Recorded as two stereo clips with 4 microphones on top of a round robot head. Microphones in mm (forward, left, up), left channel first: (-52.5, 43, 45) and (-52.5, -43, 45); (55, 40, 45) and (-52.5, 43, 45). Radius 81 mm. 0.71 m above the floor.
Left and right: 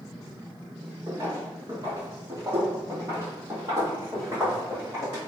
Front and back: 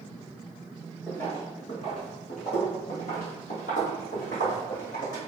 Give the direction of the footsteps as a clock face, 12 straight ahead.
3 o'clock.